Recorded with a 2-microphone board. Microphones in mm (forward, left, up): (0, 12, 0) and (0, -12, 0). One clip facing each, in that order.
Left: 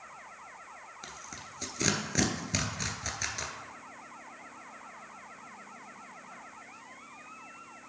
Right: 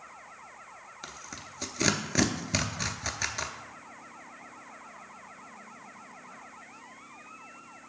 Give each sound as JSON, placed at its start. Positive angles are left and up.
{"t": 1.0, "sound": "tearing paper", "side_deg": -15, "distance_m": 0.5}